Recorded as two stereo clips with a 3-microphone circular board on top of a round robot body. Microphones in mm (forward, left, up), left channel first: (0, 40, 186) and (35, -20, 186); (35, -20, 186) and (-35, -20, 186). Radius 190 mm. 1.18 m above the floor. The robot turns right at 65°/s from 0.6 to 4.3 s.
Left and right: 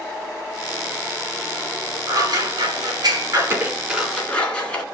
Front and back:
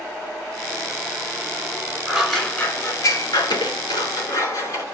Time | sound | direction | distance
2.1 | scissors | 95° right | 2.5 m